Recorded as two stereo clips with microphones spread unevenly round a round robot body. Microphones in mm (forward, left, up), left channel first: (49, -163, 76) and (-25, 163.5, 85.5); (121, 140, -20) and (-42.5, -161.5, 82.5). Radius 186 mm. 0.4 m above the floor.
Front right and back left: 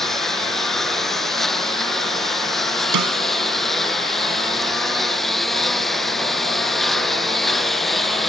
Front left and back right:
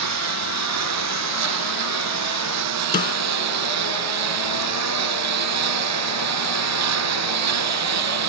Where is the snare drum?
135° left.